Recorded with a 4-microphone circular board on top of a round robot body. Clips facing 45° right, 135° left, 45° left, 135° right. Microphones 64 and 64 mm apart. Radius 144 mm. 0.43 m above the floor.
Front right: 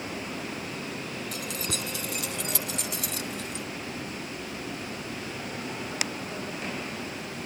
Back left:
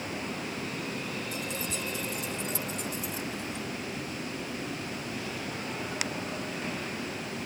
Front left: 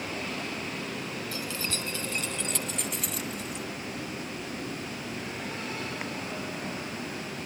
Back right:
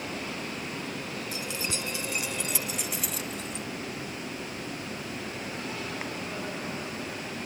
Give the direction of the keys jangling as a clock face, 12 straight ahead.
2 o'clock.